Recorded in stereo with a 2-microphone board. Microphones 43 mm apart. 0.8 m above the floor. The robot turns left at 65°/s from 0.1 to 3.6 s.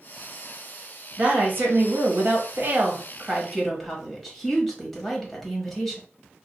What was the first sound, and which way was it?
A woman speaking, 30° right.